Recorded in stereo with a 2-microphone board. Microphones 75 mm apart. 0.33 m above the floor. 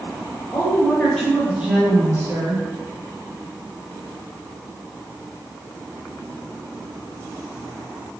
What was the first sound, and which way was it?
A woman speaking, 35° left (ahead or behind).